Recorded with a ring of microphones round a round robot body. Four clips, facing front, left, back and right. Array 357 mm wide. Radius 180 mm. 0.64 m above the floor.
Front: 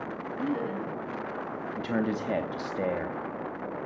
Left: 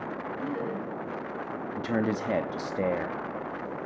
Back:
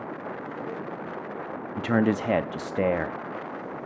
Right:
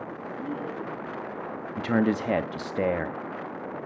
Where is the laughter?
5° left, 4.5 m.